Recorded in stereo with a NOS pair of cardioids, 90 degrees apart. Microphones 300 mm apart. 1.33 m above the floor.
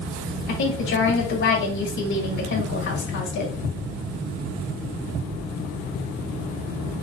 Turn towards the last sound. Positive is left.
turn(degrees=70)